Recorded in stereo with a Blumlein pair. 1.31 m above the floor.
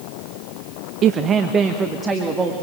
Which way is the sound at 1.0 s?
30° right.